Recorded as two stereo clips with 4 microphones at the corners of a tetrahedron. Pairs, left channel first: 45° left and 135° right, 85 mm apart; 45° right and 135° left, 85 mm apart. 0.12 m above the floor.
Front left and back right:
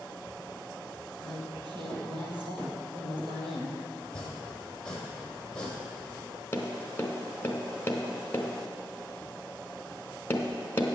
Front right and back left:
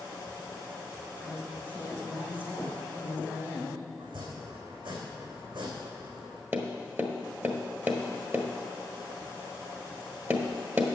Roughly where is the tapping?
Left.